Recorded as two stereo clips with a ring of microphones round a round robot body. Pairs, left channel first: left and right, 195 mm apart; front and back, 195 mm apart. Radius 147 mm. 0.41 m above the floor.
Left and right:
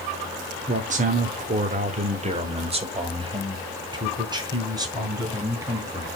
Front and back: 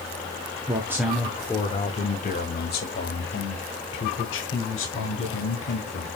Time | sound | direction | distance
0.7 | a man speaking | 125° right | 0.9 m